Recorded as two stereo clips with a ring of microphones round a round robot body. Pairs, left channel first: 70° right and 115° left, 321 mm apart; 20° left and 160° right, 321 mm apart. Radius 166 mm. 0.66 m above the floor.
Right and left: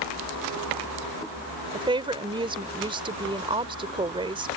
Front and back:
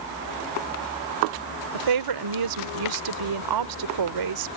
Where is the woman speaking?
170° right.